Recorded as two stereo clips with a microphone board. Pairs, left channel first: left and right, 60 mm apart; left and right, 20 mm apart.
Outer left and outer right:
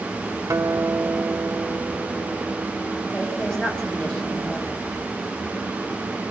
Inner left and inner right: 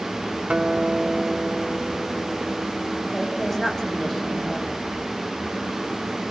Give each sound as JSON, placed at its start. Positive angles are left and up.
{"t": 0.5, "sound": "a guitar", "side_deg": -60, "distance_m": 0.8}
{"t": 3.1, "sound": "a woman speaking", "side_deg": 15, "distance_m": 5.0}